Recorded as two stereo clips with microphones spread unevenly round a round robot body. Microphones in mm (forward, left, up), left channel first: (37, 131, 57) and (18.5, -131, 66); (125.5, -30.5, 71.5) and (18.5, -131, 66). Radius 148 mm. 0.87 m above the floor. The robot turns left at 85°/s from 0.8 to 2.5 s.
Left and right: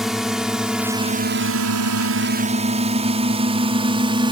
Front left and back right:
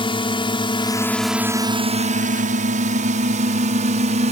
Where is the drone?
5° right; by 4.3 s 165° right.